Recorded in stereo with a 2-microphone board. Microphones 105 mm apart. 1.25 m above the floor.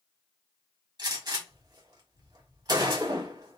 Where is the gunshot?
40° right (ahead or behind), 1.1 m.